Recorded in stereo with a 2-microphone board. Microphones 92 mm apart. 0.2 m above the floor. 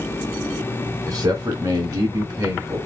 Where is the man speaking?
45° right (ahead or behind), 2.5 m.